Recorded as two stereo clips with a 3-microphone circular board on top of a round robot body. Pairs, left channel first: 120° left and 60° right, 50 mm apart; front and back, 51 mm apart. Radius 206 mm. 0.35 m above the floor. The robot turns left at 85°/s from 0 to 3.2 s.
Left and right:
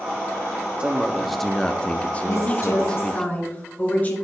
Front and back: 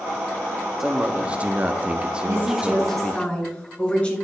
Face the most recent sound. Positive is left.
turn(degrees=65)